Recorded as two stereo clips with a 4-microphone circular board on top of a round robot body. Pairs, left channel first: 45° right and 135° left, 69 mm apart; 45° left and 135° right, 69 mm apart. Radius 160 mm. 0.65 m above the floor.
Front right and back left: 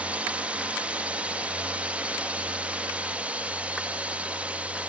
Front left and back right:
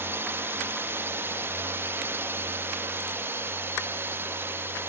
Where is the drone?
165° right.